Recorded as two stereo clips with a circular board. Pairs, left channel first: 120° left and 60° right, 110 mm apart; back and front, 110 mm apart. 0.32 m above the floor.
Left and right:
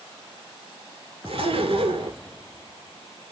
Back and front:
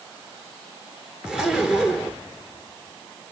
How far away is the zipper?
About 1.0 m.